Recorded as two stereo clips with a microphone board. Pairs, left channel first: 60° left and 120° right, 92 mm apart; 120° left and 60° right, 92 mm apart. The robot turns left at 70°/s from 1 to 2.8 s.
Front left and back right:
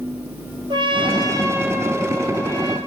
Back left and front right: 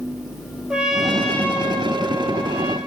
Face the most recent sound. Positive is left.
turn(degrees=90)